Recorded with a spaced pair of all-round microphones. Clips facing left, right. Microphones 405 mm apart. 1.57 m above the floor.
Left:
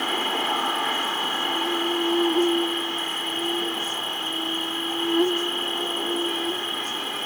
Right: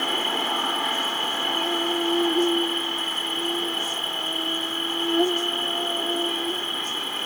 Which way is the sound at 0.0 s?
10° left (ahead or behind).